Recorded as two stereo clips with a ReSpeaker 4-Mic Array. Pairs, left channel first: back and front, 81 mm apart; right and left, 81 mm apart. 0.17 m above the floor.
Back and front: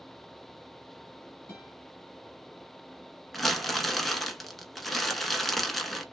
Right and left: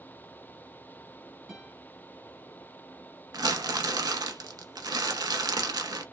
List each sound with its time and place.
1.5 s a guitar: 160° left, 1.1 m
3.3 s crumpling: 95° left, 0.6 m